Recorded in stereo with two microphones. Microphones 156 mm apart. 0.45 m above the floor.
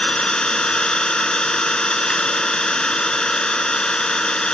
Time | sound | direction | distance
0.0 | an engine running | 5° left (ahead or behind) | ?